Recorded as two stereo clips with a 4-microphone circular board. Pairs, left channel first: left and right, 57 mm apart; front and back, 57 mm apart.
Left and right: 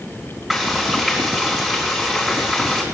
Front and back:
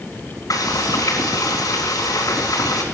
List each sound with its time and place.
0.5 s frying: 5° right, 4 m